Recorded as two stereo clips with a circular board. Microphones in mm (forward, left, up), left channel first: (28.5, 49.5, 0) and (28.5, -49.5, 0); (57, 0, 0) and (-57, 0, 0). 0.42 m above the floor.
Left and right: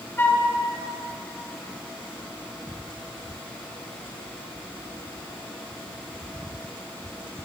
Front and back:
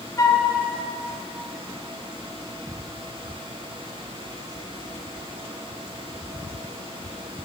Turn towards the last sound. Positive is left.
turn(degrees=35)